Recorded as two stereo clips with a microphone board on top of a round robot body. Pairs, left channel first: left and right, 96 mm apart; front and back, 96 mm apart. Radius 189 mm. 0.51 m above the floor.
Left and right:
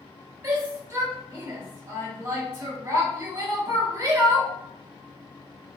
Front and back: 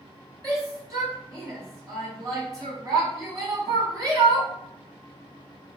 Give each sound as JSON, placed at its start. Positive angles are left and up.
{"t": 0.4, "sound": "a shout", "azimuth_deg": -140, "distance_m": 1.8}